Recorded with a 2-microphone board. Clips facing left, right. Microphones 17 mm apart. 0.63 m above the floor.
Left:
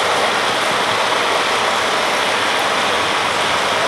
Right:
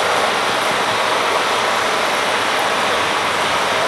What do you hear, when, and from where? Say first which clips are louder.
0.0 s running water: even; 35° left (ahead or behind), 3 m